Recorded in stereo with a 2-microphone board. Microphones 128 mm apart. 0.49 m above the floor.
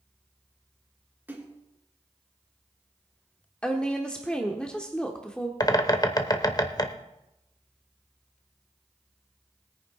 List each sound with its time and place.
1.3 s a splash: 15° right (ahead or behind), 1.8 m
3.6 s a woman speaking: 10° left (ahead or behind), 1.0 m
5.6 s a bird: 30° left (ahead or behind), 0.9 m